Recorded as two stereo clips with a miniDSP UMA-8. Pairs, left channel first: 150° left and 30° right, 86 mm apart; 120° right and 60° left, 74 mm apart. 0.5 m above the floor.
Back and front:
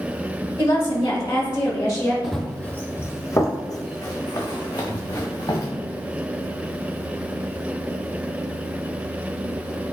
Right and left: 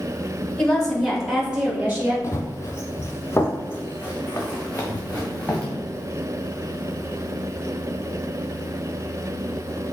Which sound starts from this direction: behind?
A woman speaking, at 0.6 s.